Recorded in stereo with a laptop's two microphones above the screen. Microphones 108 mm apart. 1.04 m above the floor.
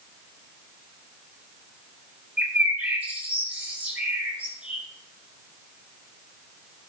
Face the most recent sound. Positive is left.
turn(degrees=-10)  # may be behind; listen again after turning